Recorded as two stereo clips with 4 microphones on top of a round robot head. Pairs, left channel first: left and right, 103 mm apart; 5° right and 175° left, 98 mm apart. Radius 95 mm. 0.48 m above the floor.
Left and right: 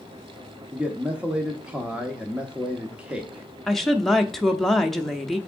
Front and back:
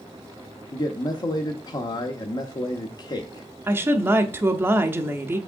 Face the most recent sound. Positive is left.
turn(degrees=170)